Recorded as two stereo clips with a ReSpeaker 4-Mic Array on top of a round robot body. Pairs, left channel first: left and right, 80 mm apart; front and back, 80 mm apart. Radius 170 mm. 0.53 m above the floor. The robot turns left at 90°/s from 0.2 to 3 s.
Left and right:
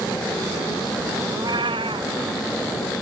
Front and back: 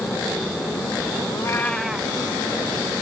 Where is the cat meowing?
40° right; by 2.1 s 115° right.